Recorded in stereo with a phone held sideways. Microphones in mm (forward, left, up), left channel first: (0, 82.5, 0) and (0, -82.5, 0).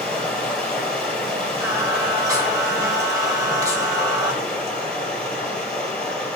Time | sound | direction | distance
0.0 | running water | 5° left (ahead or behind) | 2.5 m
1.6 | singing | 20° right (ahead or behind) | 1.1 m